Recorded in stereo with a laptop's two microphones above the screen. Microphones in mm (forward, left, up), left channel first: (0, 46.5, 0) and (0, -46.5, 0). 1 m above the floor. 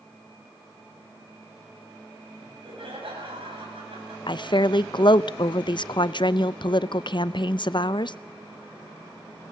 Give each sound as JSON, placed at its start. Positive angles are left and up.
{"t": 2.4, "sound": "laughter", "side_deg": -70, "distance_m": 7.5}
{"t": 4.3, "sound": "a woman speaking", "side_deg": 55, "distance_m": 0.5}